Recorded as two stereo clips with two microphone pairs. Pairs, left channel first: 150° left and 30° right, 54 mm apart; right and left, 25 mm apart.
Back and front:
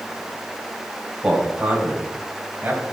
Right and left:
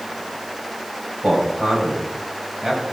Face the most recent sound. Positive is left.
turn(degrees=30)